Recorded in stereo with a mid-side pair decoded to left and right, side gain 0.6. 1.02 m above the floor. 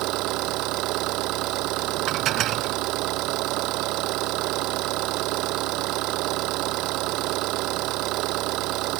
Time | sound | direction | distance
0.0 | an engine running | 70° right | ?
2.1 | dishes clattering | 55° right | ?